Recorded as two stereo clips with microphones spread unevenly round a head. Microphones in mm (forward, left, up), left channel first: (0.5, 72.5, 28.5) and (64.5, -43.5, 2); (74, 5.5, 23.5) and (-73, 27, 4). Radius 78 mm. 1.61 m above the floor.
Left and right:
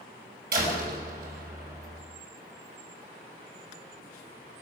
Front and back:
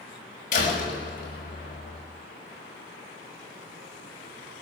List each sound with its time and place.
0.5 s a door slam: 50° right, 6 m